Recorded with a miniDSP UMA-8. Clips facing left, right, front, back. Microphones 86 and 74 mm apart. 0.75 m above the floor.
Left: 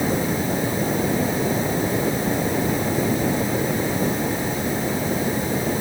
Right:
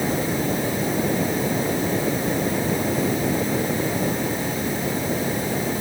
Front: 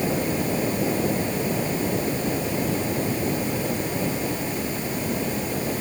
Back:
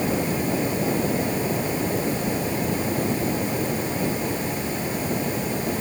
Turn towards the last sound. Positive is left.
No sound to turn to.